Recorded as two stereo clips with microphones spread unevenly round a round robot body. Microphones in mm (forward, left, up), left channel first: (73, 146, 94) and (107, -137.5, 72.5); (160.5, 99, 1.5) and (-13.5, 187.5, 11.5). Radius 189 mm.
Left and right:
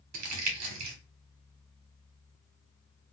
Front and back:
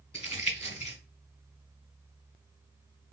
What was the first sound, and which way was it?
Crumpling, 100° right.